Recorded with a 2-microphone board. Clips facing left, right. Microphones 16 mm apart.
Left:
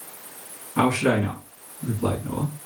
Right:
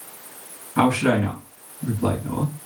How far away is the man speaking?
About 1.6 m.